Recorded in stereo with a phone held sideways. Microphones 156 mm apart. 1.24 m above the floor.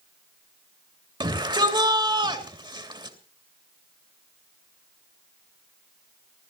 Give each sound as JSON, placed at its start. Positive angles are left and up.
{"t": 1.2, "sound": "a shout", "side_deg": -30, "distance_m": 3.0}